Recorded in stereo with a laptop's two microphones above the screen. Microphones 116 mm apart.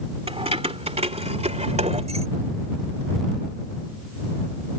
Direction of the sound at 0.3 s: 55° right (ahead or behind).